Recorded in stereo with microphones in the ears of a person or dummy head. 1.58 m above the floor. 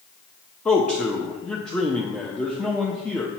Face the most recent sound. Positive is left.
turn(degrees=0)  # may be behind; listen again after turning